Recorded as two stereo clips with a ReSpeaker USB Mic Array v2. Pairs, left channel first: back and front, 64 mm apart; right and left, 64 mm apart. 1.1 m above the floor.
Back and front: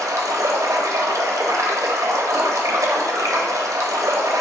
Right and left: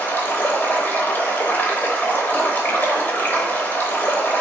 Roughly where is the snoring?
No snoring in this recording.